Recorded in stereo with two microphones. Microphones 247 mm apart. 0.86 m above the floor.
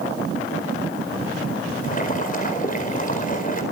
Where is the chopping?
I don't hear chopping.